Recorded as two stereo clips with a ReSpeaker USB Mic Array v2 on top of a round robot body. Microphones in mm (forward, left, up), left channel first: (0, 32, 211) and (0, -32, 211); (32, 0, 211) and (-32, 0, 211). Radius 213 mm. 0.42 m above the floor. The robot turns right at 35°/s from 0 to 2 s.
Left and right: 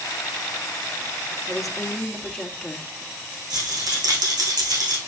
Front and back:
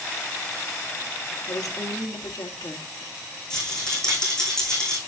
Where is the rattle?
80° right, 5 m.